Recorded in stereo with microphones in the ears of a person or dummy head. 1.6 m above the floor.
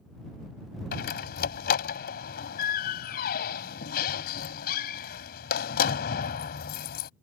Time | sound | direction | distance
0.9 | a door slam | 65° left (ahead or behind) | ?